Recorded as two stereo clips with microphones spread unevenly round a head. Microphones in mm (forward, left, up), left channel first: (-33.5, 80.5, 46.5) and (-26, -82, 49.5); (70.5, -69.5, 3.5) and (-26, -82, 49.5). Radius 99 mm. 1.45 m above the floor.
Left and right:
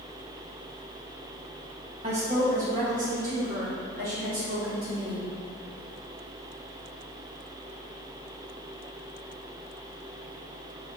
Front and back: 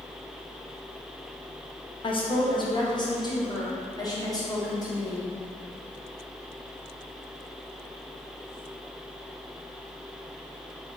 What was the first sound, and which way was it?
A woman speaking, 30° right.